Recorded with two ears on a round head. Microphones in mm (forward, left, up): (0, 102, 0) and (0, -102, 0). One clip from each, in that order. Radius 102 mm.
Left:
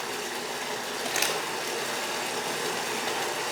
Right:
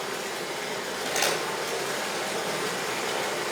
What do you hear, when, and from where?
0.0 s running water: 65° left (ahead or behind), 3 m
1.1 s crumpling: 30° left (ahead or behind), 4 m